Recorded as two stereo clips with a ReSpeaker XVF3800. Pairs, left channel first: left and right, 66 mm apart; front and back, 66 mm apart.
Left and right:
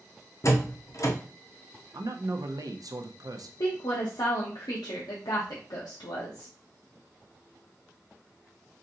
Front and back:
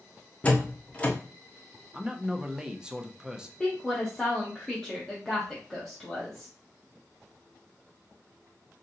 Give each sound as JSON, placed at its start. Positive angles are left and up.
{"t": 0.4, "sound": "a door slam", "azimuth_deg": 65, "distance_m": 0.7}
{"t": 1.9, "sound": "a man speaking", "azimuth_deg": -100, "distance_m": 0.6}
{"t": 3.6, "sound": "a woman speaking", "azimuth_deg": 90, "distance_m": 0.8}